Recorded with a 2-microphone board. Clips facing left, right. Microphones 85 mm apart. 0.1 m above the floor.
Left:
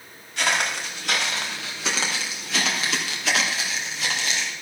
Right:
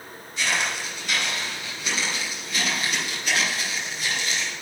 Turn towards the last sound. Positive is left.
turn(degrees=80)